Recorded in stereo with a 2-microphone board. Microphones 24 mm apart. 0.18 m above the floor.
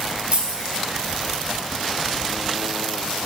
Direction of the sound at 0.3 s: 60° right (ahead or behind).